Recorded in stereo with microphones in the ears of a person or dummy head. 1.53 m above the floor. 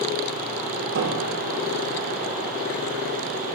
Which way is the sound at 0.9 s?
70° right (ahead or behind).